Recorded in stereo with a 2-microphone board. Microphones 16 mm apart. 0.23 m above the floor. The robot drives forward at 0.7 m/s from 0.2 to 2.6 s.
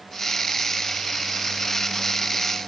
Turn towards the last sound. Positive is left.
No sound to turn to.